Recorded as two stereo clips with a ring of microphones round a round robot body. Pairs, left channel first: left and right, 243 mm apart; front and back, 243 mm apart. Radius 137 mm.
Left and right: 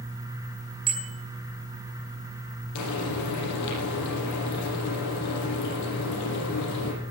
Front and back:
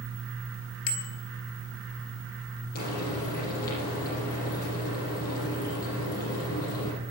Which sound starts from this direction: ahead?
A bicycle bell, at 0.9 s.